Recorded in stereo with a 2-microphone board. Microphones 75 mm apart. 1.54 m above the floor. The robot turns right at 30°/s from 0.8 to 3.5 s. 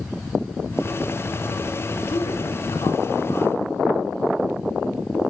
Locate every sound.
1.9 s a woman speaking: 95° left, 5 m; by 3.6 s 145° left, 5 m